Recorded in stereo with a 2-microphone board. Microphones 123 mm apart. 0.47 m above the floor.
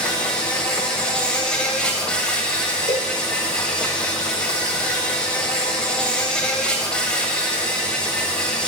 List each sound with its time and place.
0.0 s an insect: 5° left (ahead or behind), 1.9 m
2.9 s a cowbell: 60° left (ahead or behind), 1.1 m